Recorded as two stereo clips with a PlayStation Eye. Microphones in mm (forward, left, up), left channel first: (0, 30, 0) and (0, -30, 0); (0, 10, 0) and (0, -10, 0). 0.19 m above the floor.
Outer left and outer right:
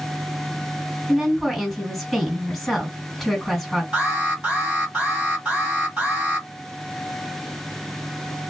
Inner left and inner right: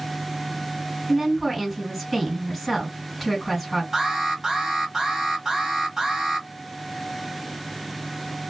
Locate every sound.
1.1 s a woman speaking: 5° left (ahead or behind), 2.0 m
3.9 s an alarm: 20° right (ahead or behind), 1.6 m